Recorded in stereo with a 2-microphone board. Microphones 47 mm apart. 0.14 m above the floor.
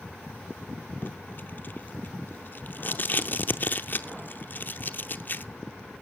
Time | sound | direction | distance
1.0 | tape being pulled | 40° left (ahead or behind) | 0.6 m